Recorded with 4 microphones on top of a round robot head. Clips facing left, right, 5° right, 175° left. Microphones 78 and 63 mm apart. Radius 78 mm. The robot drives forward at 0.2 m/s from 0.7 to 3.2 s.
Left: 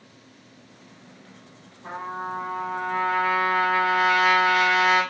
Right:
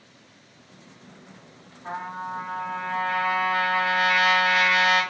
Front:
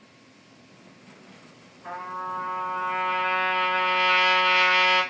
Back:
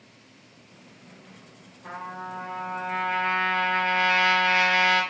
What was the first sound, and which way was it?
A trumpet, 90° left.